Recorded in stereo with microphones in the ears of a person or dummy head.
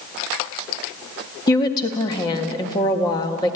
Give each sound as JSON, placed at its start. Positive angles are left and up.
{"t": 1.5, "sound": "a woman speaking", "side_deg": 20, "distance_m": 1.7}